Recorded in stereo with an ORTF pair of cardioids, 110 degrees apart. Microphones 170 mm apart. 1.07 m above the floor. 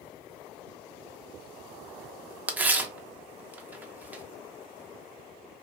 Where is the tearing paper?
10° right, 0.6 m.